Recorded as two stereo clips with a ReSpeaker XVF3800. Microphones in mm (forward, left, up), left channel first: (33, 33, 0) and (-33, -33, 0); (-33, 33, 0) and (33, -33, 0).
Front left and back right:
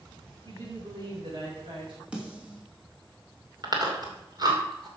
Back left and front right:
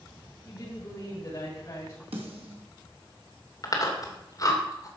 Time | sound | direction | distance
0.5 | a woman speaking | 175° right | 7 m
2.1 | a snare drum | 55° right | 3 m
3.6 | chewing | 175° right | 2.5 m